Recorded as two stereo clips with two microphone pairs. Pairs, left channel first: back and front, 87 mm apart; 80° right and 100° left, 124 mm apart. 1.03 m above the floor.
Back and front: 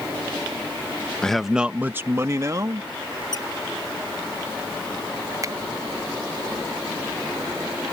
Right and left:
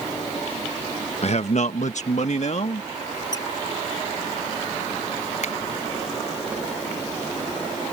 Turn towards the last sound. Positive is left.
turn(degrees=-55)